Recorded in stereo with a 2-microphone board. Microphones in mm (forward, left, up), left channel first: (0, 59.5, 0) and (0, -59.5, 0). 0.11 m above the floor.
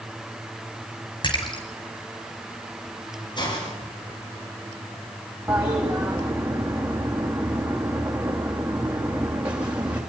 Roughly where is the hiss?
Left.